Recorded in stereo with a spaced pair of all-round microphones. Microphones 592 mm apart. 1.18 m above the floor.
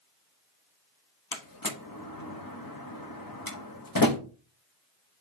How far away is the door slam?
About 1.1 m.